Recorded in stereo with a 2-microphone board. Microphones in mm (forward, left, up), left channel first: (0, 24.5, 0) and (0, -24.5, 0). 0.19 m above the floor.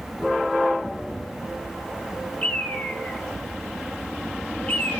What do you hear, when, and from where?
2.4 s a bird: 30° left (ahead or behind), 1.0 m